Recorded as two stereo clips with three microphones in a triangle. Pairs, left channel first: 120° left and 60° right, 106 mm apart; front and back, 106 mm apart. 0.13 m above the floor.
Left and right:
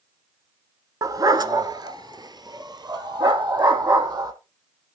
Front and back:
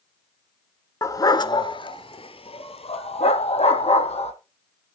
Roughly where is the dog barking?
Ahead right.